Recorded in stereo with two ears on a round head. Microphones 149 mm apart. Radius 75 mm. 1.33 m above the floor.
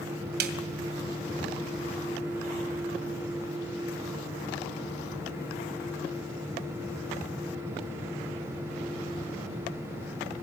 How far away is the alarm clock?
I don't hear an alarm clock.